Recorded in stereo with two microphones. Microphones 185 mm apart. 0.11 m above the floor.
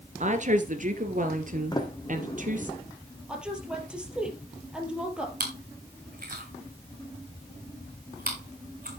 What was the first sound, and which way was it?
A woman speaking, 45° right (ahead or behind).